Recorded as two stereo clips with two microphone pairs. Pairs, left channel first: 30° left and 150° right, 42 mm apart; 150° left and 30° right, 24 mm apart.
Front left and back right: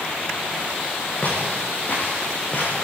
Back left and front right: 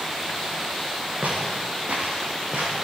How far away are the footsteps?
About 7.5 m.